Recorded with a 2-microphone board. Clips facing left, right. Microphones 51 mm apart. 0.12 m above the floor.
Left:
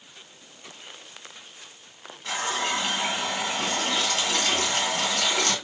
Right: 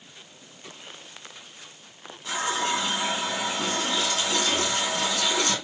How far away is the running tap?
About 1.4 m.